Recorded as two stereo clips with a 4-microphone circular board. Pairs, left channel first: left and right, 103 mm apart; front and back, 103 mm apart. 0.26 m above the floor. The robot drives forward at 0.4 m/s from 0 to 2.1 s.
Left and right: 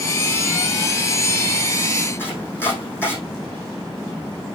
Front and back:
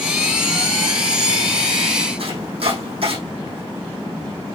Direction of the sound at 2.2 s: 155° left.